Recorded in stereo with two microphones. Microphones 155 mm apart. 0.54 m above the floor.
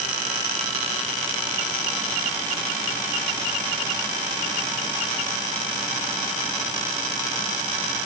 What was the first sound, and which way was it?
Only background noise.